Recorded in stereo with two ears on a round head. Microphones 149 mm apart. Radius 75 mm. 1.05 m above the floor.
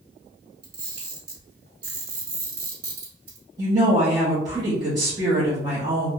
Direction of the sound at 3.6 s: 20° right (ahead or behind).